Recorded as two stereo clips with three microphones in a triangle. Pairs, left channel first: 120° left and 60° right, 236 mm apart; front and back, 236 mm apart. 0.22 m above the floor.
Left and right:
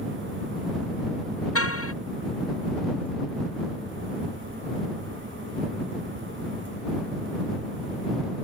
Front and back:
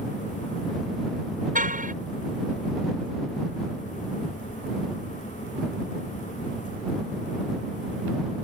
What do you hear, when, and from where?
1.6 s a car horn: 125° left